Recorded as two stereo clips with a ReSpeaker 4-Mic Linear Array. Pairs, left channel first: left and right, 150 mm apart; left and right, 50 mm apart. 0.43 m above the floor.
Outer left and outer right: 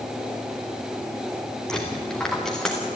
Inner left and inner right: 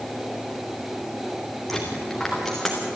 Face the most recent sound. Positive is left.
turn(degrees=5)  # may be behind; listen again after turning